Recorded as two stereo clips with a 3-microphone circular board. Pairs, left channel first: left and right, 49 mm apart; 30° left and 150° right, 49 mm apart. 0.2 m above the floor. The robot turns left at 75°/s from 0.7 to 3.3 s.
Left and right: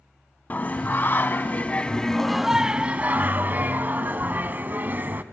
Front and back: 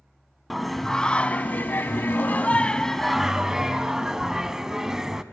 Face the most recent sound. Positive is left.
turn(degrees=-75)